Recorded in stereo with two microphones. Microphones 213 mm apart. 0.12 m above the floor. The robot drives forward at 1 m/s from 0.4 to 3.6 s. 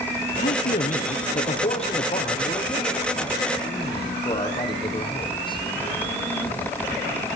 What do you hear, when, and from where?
0.4 s a man speaking: 40° left (ahead or behind), 3.5 m; by 5.6 s 25° left (ahead or behind), 6.5 m